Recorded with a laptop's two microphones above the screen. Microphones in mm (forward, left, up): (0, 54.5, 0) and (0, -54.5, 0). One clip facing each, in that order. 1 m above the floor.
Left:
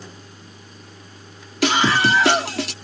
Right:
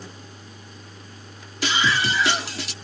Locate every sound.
1.6 s a scream: 65° left (ahead or behind)